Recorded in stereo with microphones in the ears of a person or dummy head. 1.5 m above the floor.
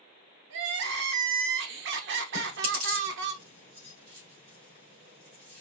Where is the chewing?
65° right (ahead or behind), 3 m.